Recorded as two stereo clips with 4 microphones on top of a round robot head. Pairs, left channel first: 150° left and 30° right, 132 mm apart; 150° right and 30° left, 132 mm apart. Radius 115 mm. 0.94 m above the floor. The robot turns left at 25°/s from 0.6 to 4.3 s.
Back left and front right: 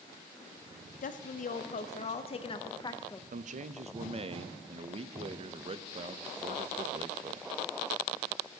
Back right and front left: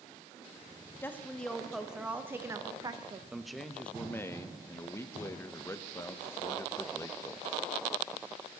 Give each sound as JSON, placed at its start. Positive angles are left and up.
{"t": 1.0, "sound": "a woman speaking", "azimuth_deg": 140, "distance_m": 0.6}
{"t": 3.3, "sound": "a man speaking", "azimuth_deg": -55, "distance_m": 0.5}